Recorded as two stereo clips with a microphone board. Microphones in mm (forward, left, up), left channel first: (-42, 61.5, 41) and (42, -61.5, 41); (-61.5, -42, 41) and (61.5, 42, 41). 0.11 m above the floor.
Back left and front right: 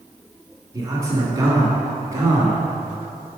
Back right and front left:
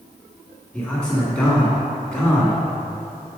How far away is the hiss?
No hiss in this recording.